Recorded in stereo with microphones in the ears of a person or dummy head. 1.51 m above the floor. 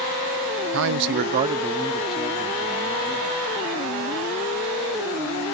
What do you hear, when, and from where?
0.7 s a man speaking: 75° right (ahead or behind), 0.6 m; by 3.6 s 20° left (ahead or behind), 2 m